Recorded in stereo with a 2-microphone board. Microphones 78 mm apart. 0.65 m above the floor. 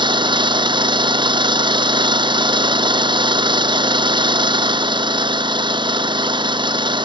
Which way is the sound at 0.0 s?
90° right.